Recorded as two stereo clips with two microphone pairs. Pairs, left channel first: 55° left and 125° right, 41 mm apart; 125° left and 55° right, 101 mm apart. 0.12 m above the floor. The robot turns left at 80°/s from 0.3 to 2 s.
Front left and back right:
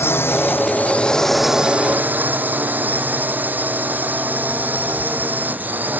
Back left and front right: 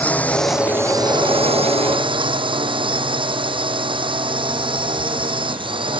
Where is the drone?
50° left; by 6.0 s 85° right.